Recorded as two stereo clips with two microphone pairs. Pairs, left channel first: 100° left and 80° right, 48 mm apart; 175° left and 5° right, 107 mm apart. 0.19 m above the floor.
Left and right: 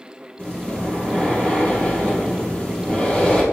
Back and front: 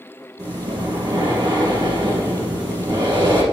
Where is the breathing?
35° left, 2.5 m.